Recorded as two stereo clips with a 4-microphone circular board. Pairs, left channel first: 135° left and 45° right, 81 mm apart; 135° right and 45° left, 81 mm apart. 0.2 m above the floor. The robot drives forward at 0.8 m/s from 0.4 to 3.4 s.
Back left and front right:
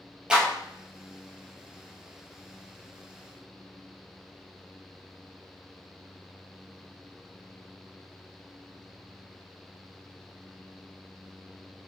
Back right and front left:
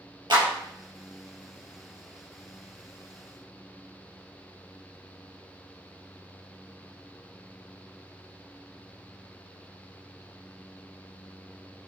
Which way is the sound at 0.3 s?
35° left.